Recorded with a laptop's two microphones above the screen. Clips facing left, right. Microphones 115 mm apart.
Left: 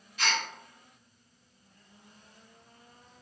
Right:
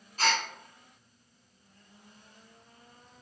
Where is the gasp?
40° right (ahead or behind), 0.8 m.